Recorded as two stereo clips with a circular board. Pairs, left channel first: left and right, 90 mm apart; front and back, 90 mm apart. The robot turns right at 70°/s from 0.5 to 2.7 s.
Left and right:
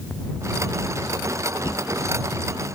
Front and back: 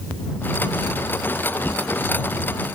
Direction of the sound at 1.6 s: 70° left.